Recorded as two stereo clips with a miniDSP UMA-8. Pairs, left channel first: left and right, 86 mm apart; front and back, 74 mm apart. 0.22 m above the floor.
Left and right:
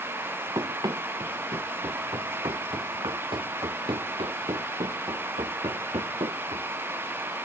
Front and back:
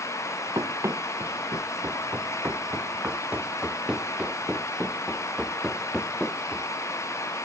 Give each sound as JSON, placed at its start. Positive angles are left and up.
{"t": 0.6, "sound": "running footsteps", "azimuth_deg": -130}